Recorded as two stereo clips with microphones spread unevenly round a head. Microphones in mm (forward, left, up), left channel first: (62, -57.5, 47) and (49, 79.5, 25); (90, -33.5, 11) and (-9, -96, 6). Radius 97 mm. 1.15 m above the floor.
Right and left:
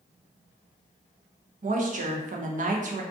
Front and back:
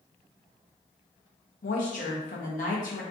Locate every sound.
1.6 s a woman speaking: 65° left, 0.7 m